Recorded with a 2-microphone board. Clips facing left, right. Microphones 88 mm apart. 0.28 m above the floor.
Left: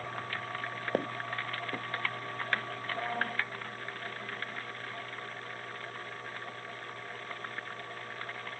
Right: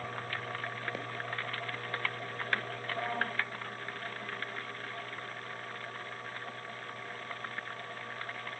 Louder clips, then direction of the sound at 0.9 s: Left 5 dB; 50° left (ahead or behind).